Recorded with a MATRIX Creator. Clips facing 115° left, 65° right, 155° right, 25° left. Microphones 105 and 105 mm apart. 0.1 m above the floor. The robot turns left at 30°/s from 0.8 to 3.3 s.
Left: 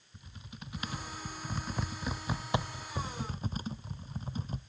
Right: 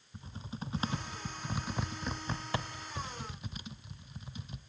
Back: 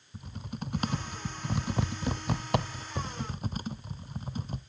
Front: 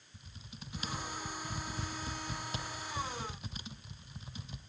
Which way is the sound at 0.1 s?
125° right.